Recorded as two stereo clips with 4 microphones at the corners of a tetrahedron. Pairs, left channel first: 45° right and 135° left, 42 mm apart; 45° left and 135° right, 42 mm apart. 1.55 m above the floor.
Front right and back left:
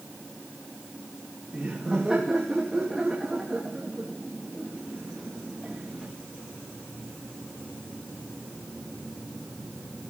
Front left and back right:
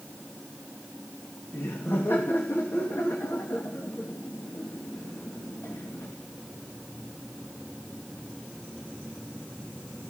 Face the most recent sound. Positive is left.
turn(degrees=55)